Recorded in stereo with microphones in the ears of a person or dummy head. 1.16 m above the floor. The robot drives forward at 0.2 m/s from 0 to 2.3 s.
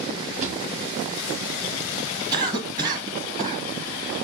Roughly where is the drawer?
Right.